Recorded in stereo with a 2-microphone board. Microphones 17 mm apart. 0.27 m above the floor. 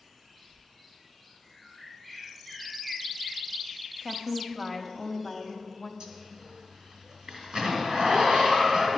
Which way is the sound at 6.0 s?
60° right (ahead or behind).